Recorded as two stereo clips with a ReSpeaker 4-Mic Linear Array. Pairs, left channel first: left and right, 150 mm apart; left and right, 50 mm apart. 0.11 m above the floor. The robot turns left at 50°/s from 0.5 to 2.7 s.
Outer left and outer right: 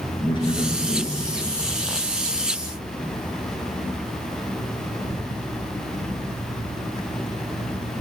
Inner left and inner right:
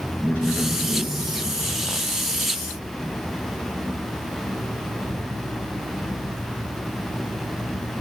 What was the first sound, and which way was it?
A man speaking, 75° left.